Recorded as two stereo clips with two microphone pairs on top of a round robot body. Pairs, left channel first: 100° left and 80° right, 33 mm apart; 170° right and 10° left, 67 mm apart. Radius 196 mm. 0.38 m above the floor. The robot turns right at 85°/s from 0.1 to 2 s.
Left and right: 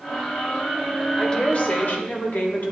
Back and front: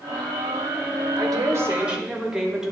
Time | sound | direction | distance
1.2 | a woman speaking | 25° left | 1.9 m